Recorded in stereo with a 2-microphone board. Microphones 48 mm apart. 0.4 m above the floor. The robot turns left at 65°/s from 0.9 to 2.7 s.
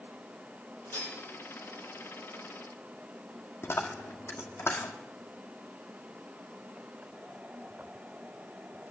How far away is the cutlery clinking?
About 7.5 m.